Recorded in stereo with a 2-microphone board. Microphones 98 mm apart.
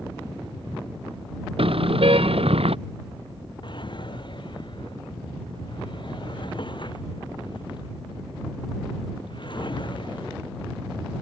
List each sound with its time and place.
1.6 s a car horn: 65° right (ahead or behind); by 2.8 s 70° right (ahead or behind)
3.6 s a drawer: 50° left (ahead or behind)